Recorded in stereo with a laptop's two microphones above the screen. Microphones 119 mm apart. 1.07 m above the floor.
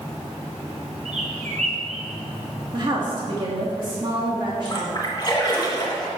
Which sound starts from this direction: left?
A splash, at 4.7 s.